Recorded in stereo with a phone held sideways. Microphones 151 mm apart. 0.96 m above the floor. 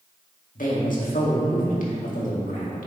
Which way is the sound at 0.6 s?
60° left (ahead or behind).